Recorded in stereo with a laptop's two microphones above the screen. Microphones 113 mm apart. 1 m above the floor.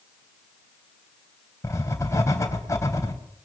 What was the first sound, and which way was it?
Writing, 25° left (ahead or behind).